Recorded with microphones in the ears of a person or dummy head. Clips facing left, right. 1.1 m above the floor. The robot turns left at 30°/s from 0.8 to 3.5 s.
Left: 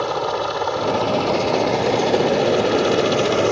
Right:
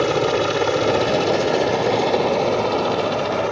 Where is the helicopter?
155° right; by 3.5 s 125° left.